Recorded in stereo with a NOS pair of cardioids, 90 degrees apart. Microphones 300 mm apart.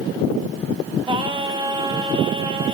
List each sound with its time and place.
1.1 s singing: 15° right, 1.0 m